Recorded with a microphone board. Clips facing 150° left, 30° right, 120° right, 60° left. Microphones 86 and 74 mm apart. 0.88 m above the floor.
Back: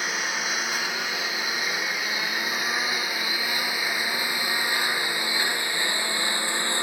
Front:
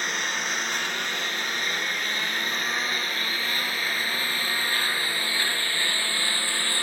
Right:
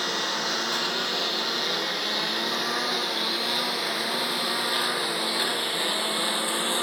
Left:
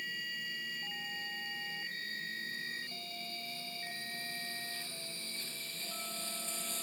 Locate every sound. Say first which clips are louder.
0.0 s a lawn mower: even, right 14 dB; 125° right; by 6.8 s 140° right